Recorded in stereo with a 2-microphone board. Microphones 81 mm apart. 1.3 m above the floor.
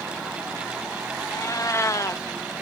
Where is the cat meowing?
45° left (ahead or behind).